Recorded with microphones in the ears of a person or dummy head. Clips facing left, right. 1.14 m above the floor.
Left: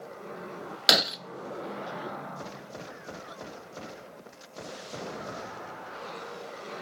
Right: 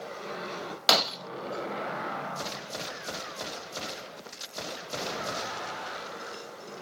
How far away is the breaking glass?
About 0.6 m.